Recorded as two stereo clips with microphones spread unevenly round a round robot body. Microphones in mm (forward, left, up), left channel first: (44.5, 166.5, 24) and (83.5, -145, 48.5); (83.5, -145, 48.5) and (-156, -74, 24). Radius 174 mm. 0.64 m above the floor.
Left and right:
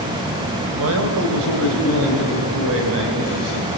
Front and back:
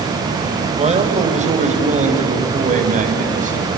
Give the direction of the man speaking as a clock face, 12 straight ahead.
4 o'clock.